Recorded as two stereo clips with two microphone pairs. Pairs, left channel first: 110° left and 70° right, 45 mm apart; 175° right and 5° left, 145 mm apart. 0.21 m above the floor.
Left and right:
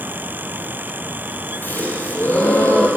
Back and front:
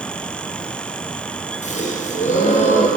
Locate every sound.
1.6 s a gasp: 150° left, 3 m